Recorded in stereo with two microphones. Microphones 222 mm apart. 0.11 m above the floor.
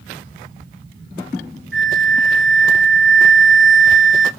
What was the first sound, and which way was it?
A flute, 55° right (ahead or behind).